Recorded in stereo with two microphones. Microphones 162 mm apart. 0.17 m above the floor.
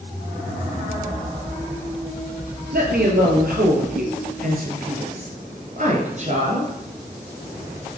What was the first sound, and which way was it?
A woman speaking, 70° right (ahead or behind).